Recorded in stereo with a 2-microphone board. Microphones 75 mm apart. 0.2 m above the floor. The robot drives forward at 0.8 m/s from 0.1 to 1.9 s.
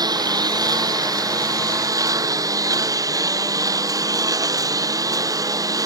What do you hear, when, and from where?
0.0 s a lawn mower: 65° right (ahead or behind); by 5.9 s 55° right (ahead or behind)